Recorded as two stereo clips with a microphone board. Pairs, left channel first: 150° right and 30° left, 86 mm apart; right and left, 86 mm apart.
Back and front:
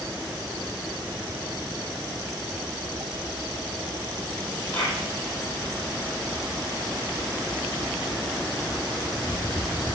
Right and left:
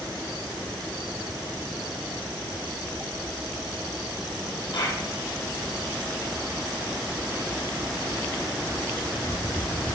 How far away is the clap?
About 6 m.